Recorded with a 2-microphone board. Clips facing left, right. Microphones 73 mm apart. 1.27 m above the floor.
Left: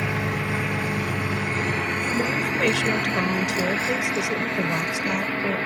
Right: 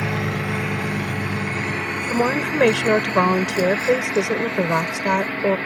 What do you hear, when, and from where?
0.0 s a vehicle: 80° right; by 5.7 s 25° right (ahead or behind)
2.1 s a woman speaking: 70° right (ahead or behind)